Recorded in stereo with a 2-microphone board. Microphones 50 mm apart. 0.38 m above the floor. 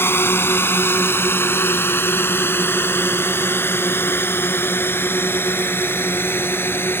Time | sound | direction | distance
0.0 | a drone | 45° left (ahead or behind) | ?